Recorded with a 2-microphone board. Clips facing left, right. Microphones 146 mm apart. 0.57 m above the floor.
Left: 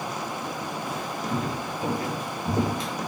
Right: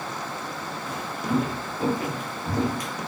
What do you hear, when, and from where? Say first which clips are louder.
0.8 s footsteps: right 4 dB; 65° right (ahead or behind), 1.2 m; by 2.9 s 30° left (ahead or behind), 0.8 m